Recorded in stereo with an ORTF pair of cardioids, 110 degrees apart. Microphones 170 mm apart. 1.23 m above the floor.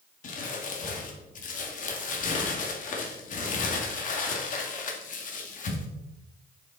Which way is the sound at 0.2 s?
50° left.